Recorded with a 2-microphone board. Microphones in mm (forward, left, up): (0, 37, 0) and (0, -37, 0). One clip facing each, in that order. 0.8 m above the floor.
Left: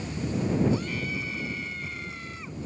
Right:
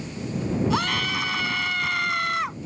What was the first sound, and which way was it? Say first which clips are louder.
A scream: right 5 dB; 85° right.